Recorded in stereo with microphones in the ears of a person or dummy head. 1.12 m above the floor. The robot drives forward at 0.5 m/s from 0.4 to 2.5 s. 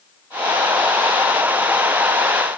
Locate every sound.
Only background noise.